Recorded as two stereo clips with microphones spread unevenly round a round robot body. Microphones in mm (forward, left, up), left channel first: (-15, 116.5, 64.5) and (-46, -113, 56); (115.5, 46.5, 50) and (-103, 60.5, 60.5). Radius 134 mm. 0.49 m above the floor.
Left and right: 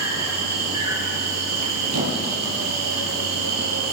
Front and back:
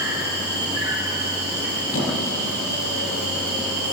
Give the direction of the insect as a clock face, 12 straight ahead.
4 o'clock.